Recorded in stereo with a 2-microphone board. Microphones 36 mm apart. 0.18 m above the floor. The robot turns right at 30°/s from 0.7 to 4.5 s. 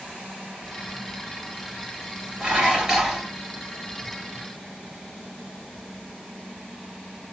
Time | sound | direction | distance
2.4 | dishes clattering | 30° right (ahead or behind) | 2 m